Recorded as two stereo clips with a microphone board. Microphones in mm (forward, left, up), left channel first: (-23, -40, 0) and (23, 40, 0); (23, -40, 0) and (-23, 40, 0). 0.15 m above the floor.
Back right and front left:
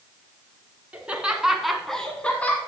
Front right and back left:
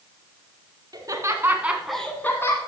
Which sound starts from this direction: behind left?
Laughter, at 0.9 s.